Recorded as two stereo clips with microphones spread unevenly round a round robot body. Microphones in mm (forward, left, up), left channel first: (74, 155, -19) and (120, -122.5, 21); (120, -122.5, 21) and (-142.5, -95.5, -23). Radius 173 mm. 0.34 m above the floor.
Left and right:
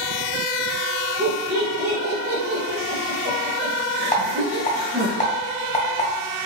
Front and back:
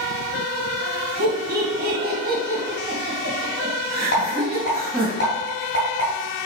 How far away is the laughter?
About 1.8 m.